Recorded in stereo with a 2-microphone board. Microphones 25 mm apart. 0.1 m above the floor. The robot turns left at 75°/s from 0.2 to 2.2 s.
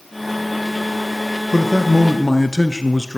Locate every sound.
1.5 s a man speaking: 15° left (ahead or behind), 1.1 m